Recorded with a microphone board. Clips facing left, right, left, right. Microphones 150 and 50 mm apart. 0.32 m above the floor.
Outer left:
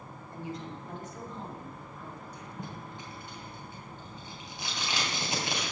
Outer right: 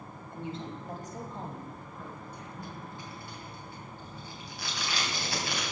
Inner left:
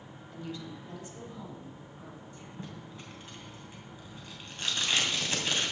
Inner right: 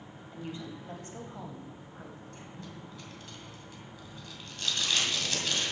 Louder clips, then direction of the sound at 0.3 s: Outer right 1 dB, even; 20° right (ahead or behind).